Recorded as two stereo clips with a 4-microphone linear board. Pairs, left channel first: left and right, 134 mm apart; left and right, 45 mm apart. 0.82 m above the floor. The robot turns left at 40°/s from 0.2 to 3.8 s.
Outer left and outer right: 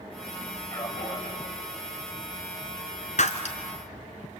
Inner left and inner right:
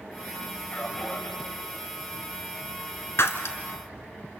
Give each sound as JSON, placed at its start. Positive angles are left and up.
{"t": 0.7, "sound": "a man speaking", "side_deg": 20, "distance_m": 5.0}
{"t": 3.2, "sound": "breaking glass", "side_deg": 65, "distance_m": 1.6}